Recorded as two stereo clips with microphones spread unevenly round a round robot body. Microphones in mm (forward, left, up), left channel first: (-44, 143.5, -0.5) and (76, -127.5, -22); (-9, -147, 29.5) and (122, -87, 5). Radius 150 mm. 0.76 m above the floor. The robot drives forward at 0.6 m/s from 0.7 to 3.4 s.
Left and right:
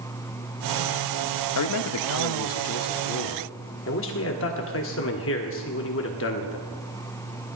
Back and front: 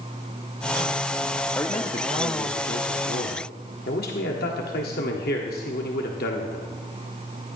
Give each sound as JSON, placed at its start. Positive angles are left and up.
{"t": 1.6, "sound": "a man speaking", "azimuth_deg": 115, "distance_m": 0.5}